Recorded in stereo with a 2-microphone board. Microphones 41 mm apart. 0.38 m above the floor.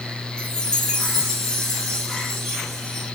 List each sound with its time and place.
0.4 s a chime: 15° left (ahead or behind), 1.7 m